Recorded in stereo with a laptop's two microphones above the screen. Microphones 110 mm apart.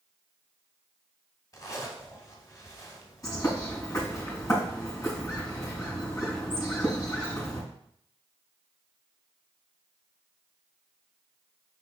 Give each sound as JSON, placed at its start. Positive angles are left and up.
{"t": 1.5, "sound": "a zipper", "side_deg": 30, "distance_m": 1.4}
{"t": 3.2, "sound": "a bird", "side_deg": 30, "distance_m": 4.5}